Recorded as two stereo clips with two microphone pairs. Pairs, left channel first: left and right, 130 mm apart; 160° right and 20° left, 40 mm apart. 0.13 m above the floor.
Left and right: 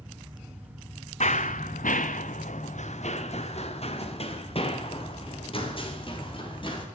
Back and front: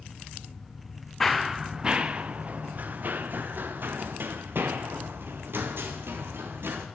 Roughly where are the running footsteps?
Behind left.